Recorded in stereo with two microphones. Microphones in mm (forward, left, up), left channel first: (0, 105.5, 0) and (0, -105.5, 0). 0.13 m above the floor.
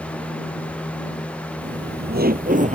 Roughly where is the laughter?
Right.